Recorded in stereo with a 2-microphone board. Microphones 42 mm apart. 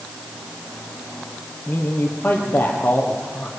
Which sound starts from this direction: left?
A man speaking, at 1.7 s.